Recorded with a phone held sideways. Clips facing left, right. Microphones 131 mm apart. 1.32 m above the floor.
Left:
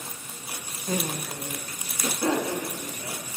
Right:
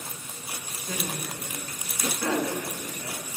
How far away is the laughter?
About 1.3 m.